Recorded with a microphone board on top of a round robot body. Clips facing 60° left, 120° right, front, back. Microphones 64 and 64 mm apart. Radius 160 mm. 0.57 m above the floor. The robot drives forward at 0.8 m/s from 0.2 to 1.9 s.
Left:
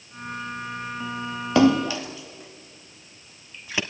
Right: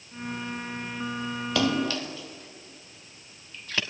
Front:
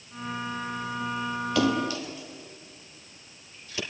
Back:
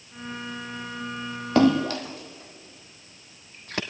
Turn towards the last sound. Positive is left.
turn(degrees=135)